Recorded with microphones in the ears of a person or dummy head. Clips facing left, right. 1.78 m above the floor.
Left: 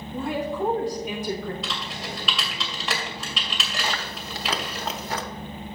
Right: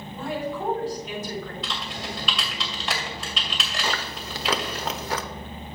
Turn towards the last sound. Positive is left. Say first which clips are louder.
# right 2 dB
turn(degrees=-60)  # may be behind; listen again after turning